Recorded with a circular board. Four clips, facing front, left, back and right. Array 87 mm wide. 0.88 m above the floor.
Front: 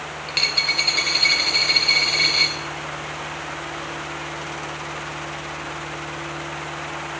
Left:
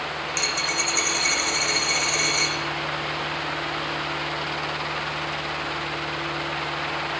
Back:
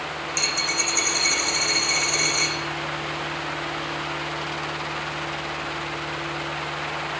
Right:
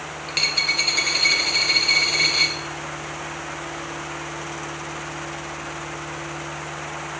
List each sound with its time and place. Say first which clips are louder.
0.3 s a dropped coin: right 3 dB, front 3 dB; 30° right, 0.7 m